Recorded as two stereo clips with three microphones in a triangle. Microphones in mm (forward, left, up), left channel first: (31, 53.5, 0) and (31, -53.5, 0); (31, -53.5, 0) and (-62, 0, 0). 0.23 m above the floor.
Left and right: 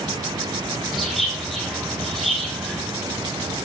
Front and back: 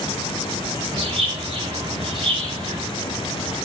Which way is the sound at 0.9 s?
Straight behind.